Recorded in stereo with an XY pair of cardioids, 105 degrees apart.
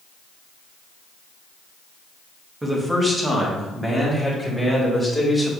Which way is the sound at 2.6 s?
15° right.